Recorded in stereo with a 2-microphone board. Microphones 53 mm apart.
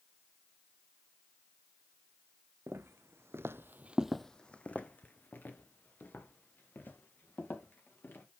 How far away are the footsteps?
About 1.4 m.